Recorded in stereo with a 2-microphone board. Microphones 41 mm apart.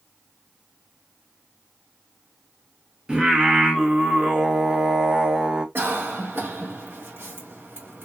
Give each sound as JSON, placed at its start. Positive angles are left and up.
{"t": 3.1, "sound": "singing", "side_deg": -20, "distance_m": 0.6}
{"t": 5.8, "sound": "a cough", "side_deg": -55, "distance_m": 1.3}